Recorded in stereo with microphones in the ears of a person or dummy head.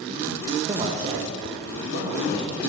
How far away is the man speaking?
About 0.9 m.